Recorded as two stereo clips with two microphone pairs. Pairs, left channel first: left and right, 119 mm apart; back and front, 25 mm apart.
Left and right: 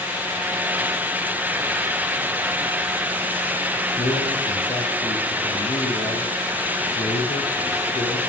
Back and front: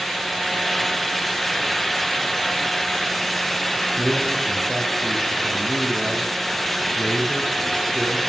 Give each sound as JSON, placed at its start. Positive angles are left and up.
{"t": 4.0, "sound": "a man speaking", "azimuth_deg": 65, "distance_m": 6.5}